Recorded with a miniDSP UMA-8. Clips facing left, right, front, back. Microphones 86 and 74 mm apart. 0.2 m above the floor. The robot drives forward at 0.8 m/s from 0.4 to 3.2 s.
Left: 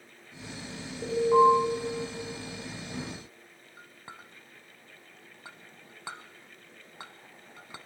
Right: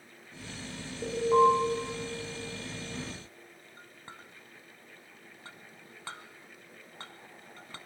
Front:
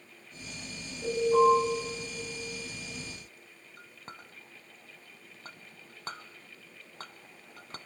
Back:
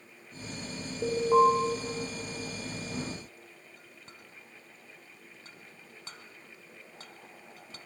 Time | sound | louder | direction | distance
1.0 | an alarm | left 2 dB, even | straight behind | 8 m
3.8 | a clink | left 3 dB, front 4 dB | 15° left | 0.9 m